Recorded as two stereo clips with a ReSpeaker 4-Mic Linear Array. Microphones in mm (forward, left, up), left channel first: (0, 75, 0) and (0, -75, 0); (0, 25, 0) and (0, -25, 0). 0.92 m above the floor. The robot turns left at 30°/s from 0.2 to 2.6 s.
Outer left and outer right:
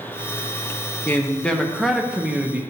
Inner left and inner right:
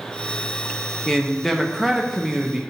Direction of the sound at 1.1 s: 10° left (ahead or behind).